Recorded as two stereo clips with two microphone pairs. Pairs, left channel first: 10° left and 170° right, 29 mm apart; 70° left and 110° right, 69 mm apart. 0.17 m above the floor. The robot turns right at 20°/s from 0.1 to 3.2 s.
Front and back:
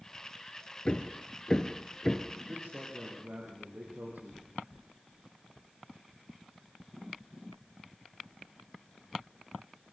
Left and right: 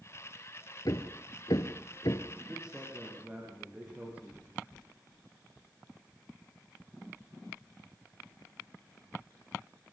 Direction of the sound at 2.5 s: 170° left.